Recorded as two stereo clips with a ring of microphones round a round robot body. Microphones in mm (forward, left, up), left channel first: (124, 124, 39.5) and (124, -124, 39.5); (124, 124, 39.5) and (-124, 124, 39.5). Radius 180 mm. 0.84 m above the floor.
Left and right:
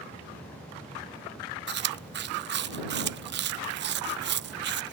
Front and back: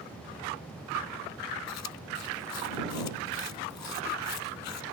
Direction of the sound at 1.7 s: 45° right.